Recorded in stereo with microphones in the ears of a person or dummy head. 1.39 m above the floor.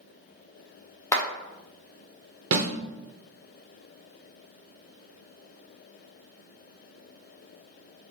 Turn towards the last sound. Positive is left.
turn(degrees=-70)  # may be behind; listen again after turning